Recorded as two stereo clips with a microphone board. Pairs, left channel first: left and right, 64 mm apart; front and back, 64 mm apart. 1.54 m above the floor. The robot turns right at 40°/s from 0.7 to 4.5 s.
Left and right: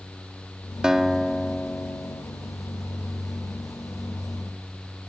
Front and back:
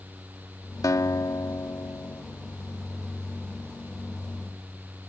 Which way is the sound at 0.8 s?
15° right.